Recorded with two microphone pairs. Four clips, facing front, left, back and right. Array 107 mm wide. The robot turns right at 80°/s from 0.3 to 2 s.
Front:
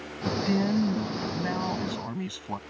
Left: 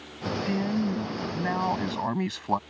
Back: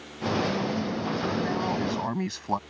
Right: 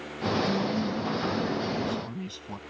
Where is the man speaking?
15° right; by 2.6 s 120° left.